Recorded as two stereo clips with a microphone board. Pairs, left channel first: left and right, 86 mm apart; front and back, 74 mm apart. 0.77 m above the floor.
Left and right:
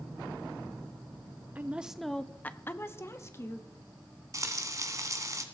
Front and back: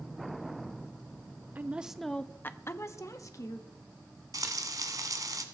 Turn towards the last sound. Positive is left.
turn(degrees=-140)